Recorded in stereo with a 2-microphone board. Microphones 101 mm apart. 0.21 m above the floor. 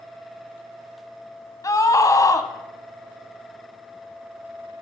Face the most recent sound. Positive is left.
turn(degrees=35)  # may be behind; listen again after turning